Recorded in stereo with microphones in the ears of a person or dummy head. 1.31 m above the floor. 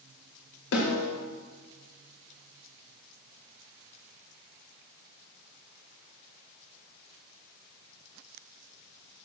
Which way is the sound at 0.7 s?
85° left.